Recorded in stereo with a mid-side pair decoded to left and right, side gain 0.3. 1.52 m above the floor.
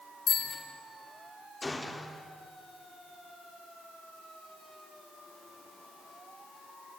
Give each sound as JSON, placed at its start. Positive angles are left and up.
{"t": 0.3, "sound": "a bicycle bell", "azimuth_deg": 70, "distance_m": 5.0}
{"t": 1.6, "sound": "a gunshot", "azimuth_deg": 25, "distance_m": 3.5}